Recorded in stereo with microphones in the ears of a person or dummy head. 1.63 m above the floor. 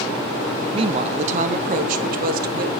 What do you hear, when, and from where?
0.7 s a woman speaking: 35° right (ahead or behind), 1.0 m; by 2.8 s 60° right (ahead or behind), 2 m